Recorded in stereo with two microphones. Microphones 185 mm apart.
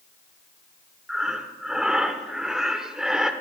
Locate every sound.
1.1 s breathing: 5° right (ahead or behind), 0.7 m